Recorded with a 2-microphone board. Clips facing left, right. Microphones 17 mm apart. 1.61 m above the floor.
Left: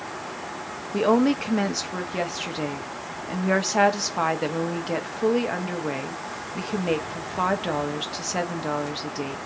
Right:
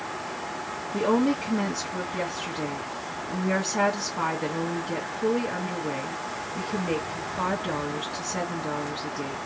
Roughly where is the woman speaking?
Left.